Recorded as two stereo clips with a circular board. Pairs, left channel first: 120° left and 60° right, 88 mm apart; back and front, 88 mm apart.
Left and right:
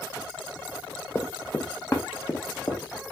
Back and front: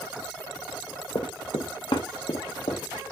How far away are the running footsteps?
About 0.7 m.